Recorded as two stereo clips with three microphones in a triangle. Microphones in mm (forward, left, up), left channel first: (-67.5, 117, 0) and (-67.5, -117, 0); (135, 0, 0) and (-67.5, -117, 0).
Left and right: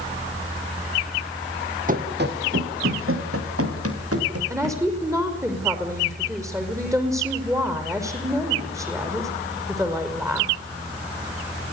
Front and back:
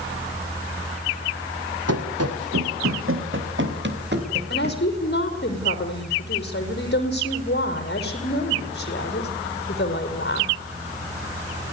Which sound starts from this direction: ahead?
A woman speaking, at 4.5 s.